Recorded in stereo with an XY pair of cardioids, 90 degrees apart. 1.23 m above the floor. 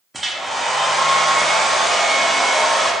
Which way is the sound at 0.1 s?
15° right.